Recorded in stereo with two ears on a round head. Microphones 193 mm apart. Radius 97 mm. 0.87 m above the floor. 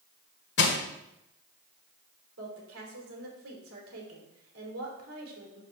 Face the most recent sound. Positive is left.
turn(degrees=-70)  # may be behind; listen again after turning